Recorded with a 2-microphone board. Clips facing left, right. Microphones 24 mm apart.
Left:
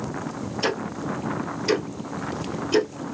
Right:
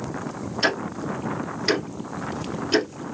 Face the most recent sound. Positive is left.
turn(degrees=-40)  # may be behind; listen again after turning